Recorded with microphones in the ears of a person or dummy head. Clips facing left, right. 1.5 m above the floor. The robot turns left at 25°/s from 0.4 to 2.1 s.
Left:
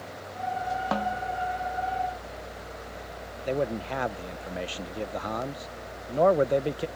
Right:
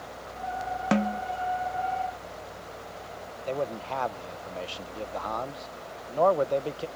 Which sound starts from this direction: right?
A snare drum, at 0.9 s.